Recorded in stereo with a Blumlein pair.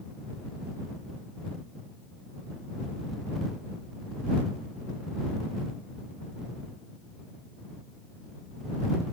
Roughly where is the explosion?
I don't hear an explosion.